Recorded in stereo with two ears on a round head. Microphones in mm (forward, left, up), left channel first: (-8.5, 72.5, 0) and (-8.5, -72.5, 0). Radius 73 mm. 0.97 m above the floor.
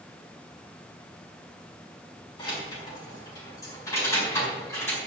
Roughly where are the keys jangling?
Left.